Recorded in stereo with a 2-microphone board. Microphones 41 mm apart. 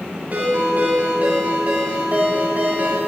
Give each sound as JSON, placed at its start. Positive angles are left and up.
{"t": 0.3, "sound": "a ringtone", "side_deg": -45, "distance_m": 2.5}